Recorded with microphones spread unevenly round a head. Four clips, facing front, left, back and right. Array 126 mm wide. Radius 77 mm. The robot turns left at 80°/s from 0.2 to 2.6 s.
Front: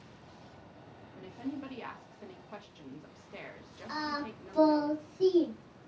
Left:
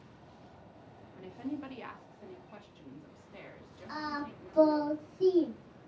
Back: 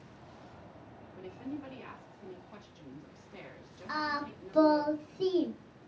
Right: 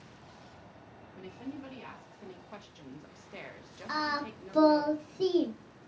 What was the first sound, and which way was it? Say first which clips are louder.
A woman speaking: left 3 dB, front 2 dB; 65° left.